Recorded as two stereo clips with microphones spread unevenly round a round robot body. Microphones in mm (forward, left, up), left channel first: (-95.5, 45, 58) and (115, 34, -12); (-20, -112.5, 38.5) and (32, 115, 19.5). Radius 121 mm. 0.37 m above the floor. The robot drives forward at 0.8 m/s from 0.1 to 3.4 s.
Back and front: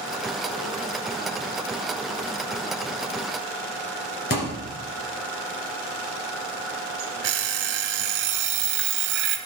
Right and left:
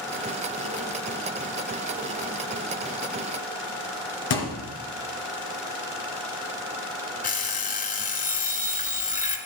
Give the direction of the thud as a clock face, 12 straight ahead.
4 o'clock.